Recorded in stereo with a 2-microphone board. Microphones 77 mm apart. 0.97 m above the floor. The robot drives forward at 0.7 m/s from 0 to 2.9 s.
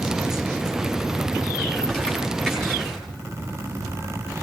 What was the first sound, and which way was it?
Crumpling, 5° left (ahead or behind).